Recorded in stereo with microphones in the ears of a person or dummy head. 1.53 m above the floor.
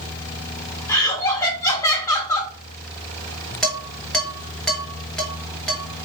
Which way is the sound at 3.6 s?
Centre (ahead or behind).